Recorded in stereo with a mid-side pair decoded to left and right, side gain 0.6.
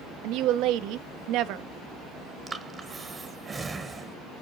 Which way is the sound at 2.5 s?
25° right.